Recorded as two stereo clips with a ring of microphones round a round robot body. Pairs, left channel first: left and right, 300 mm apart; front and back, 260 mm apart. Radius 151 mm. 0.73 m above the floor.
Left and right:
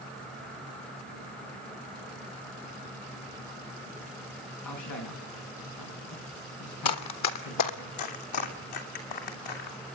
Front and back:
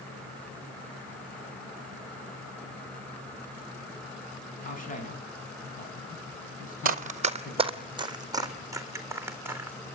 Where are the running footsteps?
125° left, 1.5 m; by 9.8 s 100° left, 4 m.